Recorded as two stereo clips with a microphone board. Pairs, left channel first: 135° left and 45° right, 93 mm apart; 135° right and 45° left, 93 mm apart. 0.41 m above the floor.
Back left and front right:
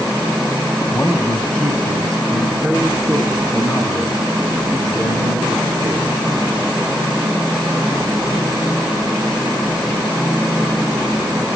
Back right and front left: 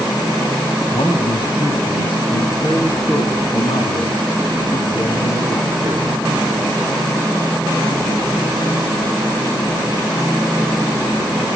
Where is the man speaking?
150° right, 2 m; by 6.1 s 130° right, 5 m.